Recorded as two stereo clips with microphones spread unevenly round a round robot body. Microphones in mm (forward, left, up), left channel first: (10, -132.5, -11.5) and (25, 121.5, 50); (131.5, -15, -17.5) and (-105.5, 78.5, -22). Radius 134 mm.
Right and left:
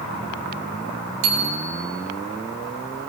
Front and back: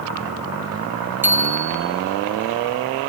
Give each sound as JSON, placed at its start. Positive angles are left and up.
{"t": 1.2, "sound": "a bicycle bell", "azimuth_deg": 75, "distance_m": 3.0}